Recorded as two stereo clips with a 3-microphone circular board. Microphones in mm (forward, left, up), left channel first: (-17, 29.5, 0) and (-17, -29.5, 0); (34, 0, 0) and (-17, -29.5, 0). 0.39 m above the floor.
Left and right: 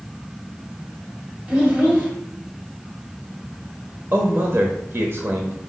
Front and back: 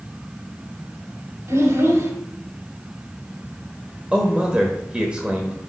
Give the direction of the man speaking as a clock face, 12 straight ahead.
3 o'clock.